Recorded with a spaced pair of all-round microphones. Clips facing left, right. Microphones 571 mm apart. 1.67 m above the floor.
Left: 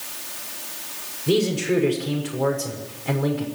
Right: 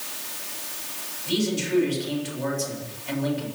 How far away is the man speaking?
About 6.5 m.